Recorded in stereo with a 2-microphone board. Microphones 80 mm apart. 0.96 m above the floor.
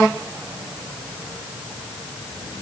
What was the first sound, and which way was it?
Only background noise.